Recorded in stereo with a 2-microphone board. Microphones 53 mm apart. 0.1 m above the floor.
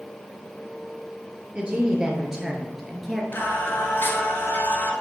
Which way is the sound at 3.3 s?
40° left (ahead or behind).